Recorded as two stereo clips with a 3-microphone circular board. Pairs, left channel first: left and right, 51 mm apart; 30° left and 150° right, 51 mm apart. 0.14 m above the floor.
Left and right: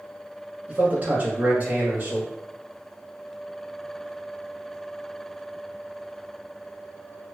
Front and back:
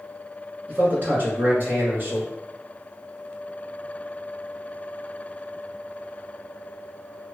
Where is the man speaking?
125° right, 1.3 m.